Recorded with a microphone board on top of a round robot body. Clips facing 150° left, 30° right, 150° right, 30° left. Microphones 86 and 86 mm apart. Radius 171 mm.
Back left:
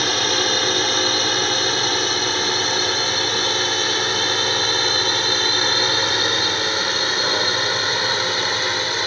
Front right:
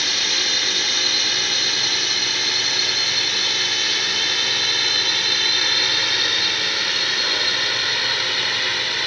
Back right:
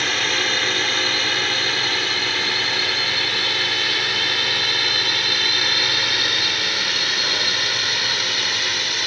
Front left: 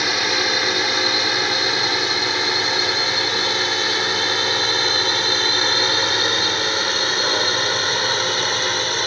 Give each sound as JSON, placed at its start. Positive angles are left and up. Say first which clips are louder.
{"t": 0.0, "sound": "a drone", "louder": "back left 7 dB, front left 2 dB", "azimuth_deg": 105}